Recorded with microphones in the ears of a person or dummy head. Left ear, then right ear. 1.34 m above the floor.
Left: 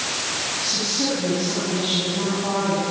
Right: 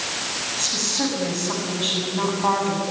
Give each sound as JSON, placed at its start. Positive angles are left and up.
{"t": 0.6, "sound": "a woman speaking", "side_deg": -50, "distance_m": 8.5}